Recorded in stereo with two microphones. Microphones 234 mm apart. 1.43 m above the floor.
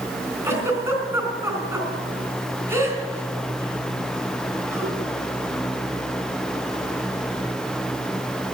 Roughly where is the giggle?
Centre.